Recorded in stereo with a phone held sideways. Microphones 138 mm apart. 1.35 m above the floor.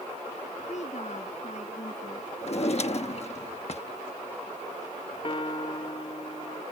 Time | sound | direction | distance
0.7 | a woman speaking | 55° left (ahead or behind) | ?
2.4 | a drawer | 50° left (ahead or behind) | ?
5.2 | a piano | 40° left (ahead or behind) | ?